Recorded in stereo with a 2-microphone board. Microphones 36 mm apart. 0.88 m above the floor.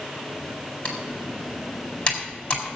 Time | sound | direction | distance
0.8 | typing on a keyboard | 25° left (ahead or behind) | 4.5 m